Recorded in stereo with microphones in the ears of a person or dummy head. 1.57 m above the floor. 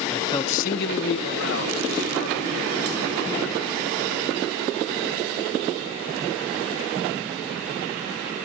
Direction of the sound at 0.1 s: Centre (ahead or behind).